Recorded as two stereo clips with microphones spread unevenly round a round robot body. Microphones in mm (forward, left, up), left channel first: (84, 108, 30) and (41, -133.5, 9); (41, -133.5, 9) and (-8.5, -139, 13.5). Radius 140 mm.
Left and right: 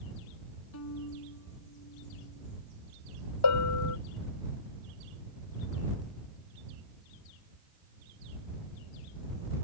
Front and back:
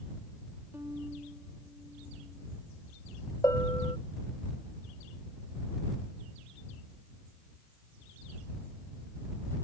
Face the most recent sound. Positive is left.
turn(degrees=70)